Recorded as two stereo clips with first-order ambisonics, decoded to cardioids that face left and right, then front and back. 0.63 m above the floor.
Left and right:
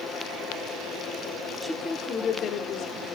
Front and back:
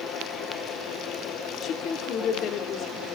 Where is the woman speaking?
5° right, 1.0 m; by 3.1 s 55° left, 2.5 m.